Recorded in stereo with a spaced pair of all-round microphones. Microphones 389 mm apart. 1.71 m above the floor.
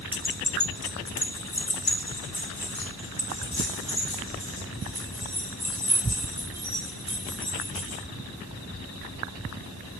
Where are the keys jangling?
10° left (ahead or behind), 0.6 m; by 8.0 s 80° left, 8.5 m.